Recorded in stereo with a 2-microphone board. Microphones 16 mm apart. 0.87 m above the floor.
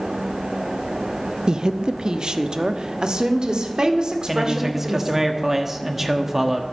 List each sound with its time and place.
1.5 s a woman speaking: 45° right (ahead or behind), 0.6 m
4.3 s a man speaking: 25° right (ahead or behind), 1.1 m